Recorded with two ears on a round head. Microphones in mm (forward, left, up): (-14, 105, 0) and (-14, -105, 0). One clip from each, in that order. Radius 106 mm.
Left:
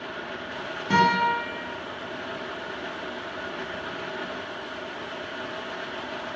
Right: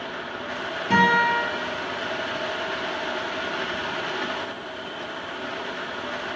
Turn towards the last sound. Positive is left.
turn(degrees=5)  # may be behind; listen again after turning